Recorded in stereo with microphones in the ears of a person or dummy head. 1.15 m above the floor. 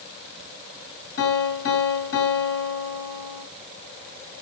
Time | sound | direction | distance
1.2 | a piano | 75° left (ahead or behind) | 2.5 m